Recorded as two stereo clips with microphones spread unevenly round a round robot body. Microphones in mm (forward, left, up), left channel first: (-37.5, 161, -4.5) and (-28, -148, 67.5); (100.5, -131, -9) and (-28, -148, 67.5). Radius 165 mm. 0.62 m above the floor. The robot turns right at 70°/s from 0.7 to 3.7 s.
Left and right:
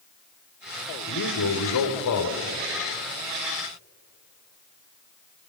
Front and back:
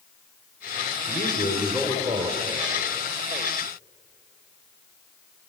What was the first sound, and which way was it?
A man speaking, 40° left.